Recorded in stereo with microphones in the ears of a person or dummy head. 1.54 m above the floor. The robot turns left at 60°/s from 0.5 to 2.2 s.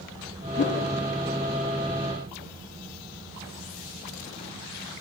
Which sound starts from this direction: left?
A whoosh, at 0.6 s.